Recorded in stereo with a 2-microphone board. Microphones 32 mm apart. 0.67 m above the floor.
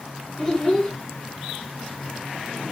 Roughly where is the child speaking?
Centre.